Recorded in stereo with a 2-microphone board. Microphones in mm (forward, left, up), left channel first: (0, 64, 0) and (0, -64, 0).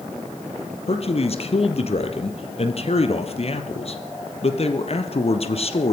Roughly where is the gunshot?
No gunshot in this recording.